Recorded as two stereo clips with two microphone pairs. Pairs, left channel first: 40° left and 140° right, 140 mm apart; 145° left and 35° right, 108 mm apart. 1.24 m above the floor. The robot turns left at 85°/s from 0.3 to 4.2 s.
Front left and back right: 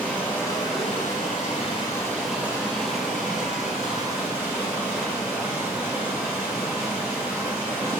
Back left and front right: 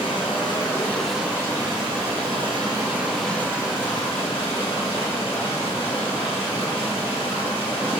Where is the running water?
120° left, 1.6 m; by 8.0 s 150° left, 1.6 m.